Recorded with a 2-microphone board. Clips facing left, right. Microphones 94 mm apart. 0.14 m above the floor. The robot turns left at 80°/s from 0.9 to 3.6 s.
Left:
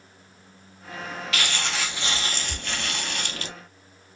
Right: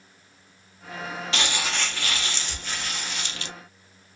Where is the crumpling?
150° right, 0.6 m; by 3.5 s 40° left, 0.6 m.